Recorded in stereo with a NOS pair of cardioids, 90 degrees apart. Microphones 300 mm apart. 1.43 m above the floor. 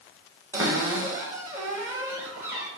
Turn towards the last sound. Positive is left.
turn(degrees=-10)